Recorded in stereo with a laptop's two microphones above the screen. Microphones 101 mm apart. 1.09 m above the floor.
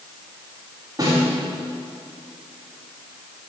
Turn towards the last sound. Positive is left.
turn(degrees=-40)  # may be behind; listen again after turning